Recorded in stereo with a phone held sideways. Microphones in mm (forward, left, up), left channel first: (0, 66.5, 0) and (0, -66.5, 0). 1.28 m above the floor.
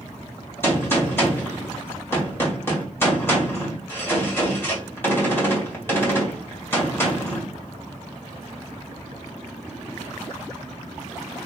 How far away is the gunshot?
About 2 m.